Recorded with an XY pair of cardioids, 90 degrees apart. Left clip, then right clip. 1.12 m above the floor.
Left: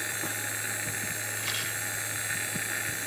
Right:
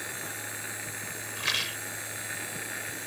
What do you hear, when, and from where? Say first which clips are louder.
0.0 s a machine running: left 4 dB; 35° left
1.4 s a rattle: right 6 dB; 45° right